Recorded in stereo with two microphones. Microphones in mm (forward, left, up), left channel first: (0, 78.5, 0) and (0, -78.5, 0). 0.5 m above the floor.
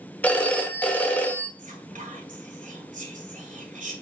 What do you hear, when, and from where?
0.2 s a phone ringing: 10° left (ahead or behind), 1.1 m
1.6 s whispering: 50° right (ahead or behind), 2 m